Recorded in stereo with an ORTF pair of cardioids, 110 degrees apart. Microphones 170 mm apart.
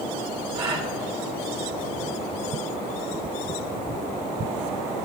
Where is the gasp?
35° right, 5.5 m.